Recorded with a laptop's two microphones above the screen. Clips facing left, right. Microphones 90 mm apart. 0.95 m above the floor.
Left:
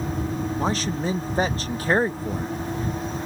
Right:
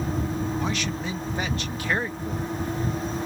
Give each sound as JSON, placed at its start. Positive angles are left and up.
{"t": 0.6, "sound": "a man speaking", "side_deg": 35}